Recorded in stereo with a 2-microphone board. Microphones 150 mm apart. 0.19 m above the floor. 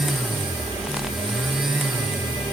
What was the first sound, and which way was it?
Only background noise.